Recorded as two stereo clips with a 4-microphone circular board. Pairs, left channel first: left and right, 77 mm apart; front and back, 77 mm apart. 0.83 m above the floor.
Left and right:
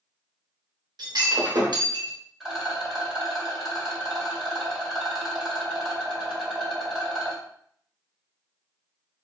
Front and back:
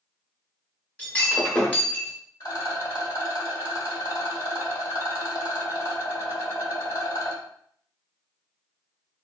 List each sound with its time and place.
1.0 s breaking glass: 70° right, 0.9 m
2.4 s a rattle: 10° right, 1.6 m